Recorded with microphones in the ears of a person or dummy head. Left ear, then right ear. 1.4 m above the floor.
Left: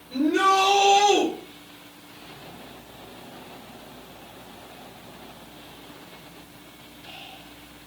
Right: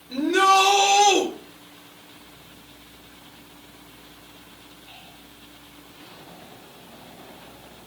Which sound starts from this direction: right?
A shout, at 0.1 s.